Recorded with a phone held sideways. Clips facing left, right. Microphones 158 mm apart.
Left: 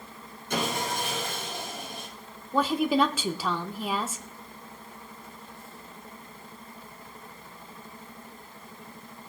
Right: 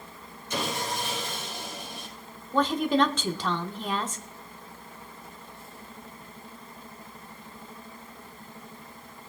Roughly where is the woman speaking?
Centre.